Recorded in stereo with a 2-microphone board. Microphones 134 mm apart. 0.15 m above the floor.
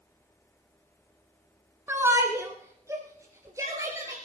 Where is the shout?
20° right (ahead or behind), 1.2 m.